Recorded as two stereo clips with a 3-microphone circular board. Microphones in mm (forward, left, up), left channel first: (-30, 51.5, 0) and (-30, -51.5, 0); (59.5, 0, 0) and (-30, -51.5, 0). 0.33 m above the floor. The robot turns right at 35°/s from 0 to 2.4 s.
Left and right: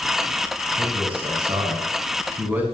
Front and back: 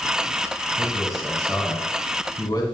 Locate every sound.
0.8 s a man speaking: 85° right, 3 m; by 2.6 s 25° right, 3 m